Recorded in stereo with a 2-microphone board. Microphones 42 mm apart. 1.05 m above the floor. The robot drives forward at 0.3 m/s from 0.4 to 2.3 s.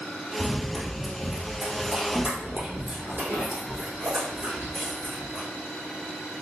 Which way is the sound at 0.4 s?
15° left (ahead or behind).